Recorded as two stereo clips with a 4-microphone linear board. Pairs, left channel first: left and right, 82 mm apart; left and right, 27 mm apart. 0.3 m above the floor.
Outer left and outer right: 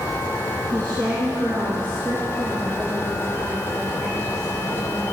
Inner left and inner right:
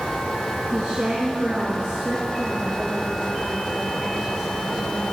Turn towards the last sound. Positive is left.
turn(degrees=-45)  # may be behind; listen again after turning